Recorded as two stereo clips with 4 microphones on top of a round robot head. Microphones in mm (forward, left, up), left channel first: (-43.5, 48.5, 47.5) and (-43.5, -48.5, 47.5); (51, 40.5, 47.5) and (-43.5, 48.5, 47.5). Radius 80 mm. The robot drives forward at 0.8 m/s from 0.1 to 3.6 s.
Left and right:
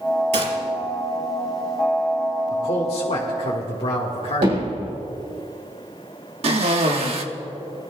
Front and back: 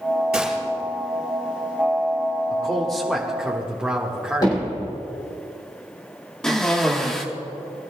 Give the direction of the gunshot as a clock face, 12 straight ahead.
3 o'clock.